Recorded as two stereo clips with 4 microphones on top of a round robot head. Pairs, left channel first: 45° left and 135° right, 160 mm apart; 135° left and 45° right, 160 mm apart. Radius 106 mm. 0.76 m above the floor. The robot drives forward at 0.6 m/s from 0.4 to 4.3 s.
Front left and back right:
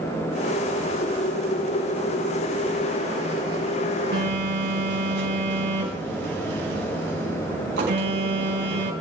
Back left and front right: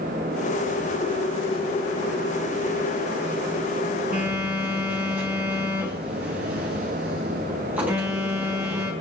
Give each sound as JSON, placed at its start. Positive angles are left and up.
{"t": 4.1, "sound": "a phone buzzing", "azimuth_deg": -125, "distance_m": 5.5}